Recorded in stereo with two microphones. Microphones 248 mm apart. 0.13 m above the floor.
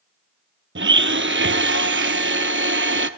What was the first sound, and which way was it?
A blender, 50° right (ahead or behind).